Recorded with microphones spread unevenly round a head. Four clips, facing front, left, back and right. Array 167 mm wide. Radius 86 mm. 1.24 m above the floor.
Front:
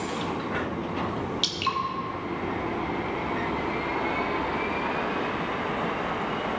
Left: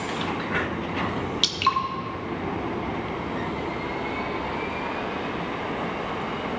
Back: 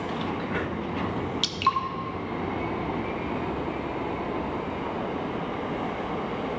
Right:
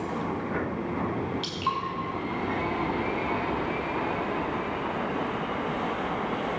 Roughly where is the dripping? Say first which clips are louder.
Left 5 dB, back 4 dB; left.